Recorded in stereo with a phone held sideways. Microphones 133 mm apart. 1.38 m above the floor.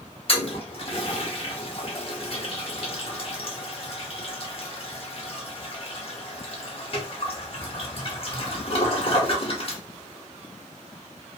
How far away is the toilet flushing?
About 0.8 m.